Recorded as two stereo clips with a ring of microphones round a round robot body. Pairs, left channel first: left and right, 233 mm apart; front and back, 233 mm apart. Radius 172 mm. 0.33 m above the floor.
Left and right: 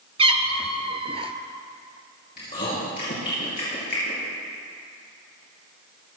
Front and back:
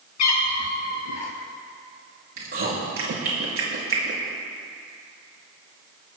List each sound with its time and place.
0.2 s a cat meowing: 20° right, 1.0 m
2.4 s chewing: 155° left, 3.5 m